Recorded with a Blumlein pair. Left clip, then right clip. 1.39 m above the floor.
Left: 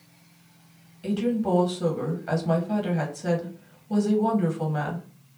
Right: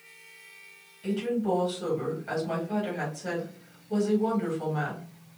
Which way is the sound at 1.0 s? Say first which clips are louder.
Left 2 dB; 70° left.